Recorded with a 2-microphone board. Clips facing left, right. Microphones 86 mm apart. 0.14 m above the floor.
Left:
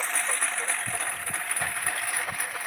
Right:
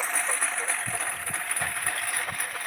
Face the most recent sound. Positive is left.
turn(degrees=5)  # may be behind; listen again after turning